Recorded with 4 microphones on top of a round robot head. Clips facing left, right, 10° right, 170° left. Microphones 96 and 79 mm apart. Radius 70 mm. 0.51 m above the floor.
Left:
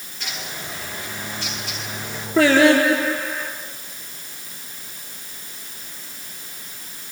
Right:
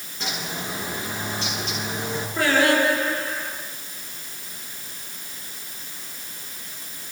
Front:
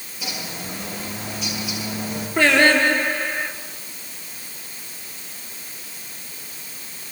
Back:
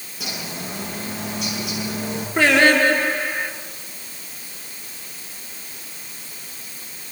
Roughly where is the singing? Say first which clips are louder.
Left 6 dB, back 1 dB; left.